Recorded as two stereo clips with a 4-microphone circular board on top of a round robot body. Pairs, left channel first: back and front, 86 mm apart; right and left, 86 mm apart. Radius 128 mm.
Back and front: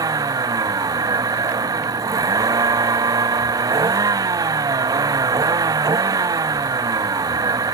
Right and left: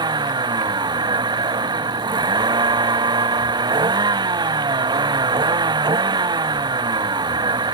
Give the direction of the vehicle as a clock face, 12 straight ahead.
10 o'clock.